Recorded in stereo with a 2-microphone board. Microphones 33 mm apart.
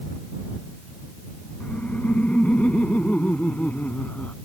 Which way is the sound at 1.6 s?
40° left (ahead or behind).